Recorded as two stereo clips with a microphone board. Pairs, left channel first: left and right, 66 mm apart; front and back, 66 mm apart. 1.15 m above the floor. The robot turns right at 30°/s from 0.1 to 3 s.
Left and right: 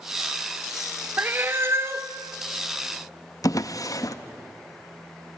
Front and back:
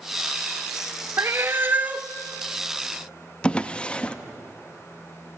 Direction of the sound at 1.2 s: 145° right.